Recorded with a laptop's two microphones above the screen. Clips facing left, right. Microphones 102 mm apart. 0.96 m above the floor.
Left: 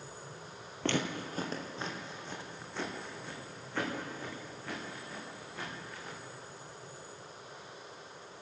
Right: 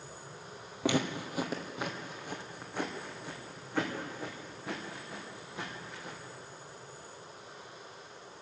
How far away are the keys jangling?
I don't hear keys jangling.